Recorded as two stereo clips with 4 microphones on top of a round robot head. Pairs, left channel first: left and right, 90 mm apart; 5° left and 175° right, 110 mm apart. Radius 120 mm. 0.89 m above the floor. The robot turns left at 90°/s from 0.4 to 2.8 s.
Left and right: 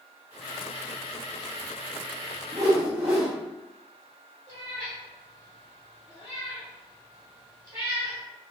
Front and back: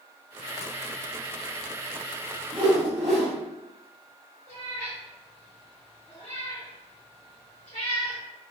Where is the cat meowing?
40° right, 1.1 m.